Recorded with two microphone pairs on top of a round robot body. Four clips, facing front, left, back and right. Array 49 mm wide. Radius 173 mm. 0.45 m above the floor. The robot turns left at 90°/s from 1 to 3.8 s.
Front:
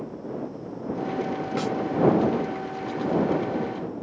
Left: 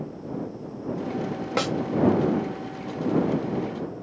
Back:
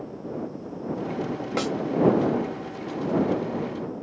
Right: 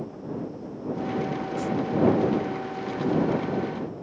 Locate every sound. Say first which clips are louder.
1.6 s a snare drum: left 5 dB, back 2 dB; 110° left; by 1.8 s 95° left